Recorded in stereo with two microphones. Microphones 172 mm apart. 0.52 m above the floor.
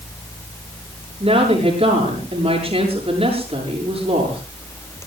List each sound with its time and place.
1.2 s a woman speaking: 35° right (ahead or behind), 7.5 m